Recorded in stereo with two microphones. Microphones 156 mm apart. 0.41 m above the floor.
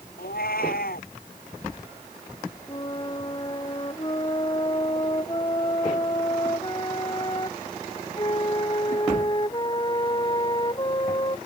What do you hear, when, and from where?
0.2 s a cat meowing: 75° left (ahead or behind)
2.7 s a flute: 30° left (ahead or behind)